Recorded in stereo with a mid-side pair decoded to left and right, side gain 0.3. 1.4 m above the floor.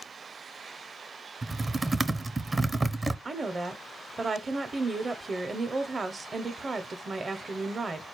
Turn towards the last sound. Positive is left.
turn(degrees=-45)